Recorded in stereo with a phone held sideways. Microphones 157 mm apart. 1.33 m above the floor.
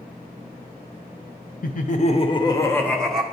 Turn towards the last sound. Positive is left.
turn(degrees=0)  # may be behind; listen again after turning